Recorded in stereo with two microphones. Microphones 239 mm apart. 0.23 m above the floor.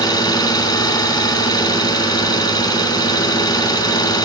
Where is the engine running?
15° left (ahead or behind), 1.7 m.